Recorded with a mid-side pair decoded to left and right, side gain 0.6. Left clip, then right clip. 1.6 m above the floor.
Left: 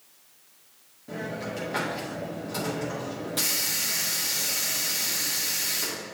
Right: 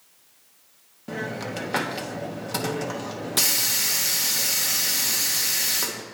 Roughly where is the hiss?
Ahead right.